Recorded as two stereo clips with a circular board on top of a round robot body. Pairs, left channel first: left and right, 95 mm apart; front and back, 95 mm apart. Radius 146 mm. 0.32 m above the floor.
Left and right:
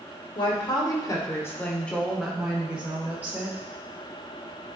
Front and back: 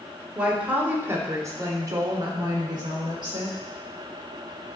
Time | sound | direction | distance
0.3 | a woman speaking | 100° left | 2 m